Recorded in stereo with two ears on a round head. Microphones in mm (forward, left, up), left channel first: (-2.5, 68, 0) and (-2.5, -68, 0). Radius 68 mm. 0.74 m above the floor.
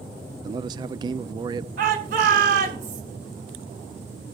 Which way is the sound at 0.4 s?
25° right (ahead or behind).